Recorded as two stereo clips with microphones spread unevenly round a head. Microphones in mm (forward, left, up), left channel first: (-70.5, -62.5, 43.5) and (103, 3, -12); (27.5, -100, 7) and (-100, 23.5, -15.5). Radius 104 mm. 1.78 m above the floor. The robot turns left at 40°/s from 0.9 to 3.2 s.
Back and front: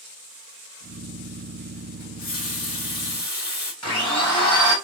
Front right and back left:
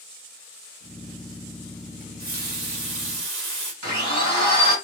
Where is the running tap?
175° right, 1.5 m; by 3.7 s 135° left, 1.5 m.